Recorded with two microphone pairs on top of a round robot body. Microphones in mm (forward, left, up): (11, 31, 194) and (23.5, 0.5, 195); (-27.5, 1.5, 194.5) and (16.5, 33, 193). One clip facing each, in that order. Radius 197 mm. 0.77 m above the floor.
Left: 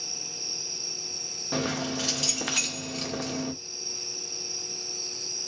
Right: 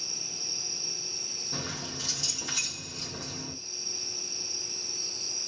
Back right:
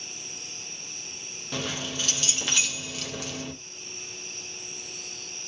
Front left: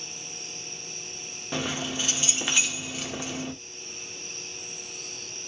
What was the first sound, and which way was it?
Keys jangling, 105° left.